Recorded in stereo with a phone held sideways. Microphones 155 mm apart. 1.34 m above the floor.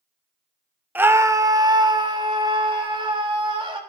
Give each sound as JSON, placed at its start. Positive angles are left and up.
{"t": 0.9, "sound": "a scream", "side_deg": -10, "distance_m": 0.9}